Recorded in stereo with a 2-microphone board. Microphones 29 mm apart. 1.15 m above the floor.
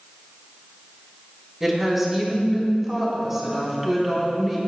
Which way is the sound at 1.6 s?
10° right (ahead or behind).